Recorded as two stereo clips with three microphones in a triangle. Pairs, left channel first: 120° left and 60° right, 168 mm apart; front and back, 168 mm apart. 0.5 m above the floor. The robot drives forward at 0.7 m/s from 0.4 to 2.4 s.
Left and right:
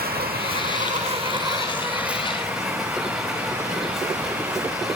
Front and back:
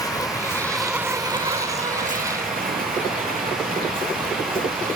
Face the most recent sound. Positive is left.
turn(degrees=-145)